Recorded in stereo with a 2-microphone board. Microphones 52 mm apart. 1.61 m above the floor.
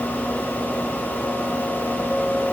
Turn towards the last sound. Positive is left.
No sound to turn to.